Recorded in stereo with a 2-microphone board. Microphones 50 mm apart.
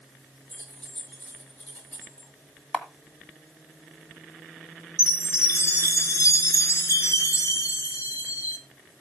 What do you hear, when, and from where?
0.5 s keys jangling: 25° left (ahead or behind), 8.5 m
2.7 s a camera shutter: 10° left (ahead or behind), 1.6 m
5.0 s a chime: 70° left (ahead or behind), 4 m